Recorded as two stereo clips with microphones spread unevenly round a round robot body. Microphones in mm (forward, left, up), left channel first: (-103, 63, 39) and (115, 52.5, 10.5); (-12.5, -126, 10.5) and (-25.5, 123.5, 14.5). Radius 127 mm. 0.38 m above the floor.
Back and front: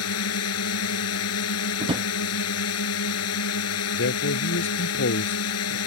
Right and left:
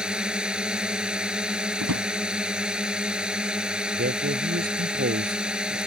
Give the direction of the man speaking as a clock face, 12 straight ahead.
7 o'clock.